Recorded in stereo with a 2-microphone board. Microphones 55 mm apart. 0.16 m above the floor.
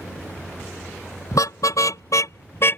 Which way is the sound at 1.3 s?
80° left.